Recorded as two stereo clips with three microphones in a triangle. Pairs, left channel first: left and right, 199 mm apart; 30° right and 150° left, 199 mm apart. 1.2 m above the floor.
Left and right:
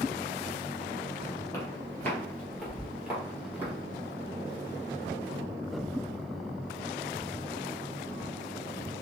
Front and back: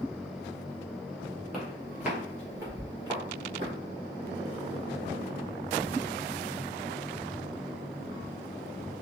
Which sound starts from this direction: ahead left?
Footsteps, at 1.5 s.